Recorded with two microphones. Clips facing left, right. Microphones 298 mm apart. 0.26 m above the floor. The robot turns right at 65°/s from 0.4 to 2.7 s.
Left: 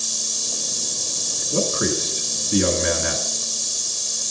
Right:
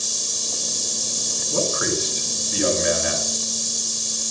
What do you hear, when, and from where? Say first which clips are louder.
1.5 s a man speaking: left 2 dB; 25° left, 3.5 m; by 3.4 s 105° left, 3.5 m